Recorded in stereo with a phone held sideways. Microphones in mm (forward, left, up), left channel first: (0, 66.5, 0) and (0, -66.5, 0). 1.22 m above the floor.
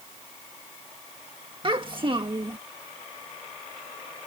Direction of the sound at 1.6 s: 40° right (ahead or behind).